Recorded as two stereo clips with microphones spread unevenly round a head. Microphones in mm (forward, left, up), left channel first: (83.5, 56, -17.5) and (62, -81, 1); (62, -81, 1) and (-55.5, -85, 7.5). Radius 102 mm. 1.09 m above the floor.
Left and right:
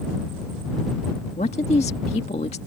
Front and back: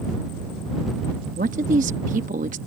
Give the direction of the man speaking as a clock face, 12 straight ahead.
7 o'clock.